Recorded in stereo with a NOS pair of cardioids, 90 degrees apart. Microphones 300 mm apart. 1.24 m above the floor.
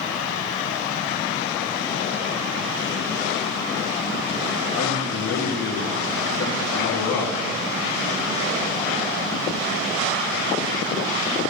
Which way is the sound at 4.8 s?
60° left.